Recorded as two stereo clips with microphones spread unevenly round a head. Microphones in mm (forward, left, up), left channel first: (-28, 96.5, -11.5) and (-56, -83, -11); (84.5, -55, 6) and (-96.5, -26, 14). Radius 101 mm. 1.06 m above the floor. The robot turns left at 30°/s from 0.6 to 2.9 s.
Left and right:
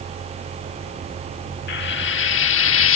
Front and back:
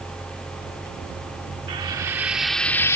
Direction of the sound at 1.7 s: 105° left.